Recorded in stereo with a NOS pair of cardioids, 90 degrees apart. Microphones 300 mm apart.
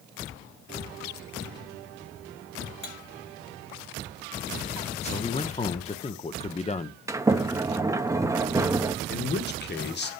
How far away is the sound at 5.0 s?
About 0.9 m.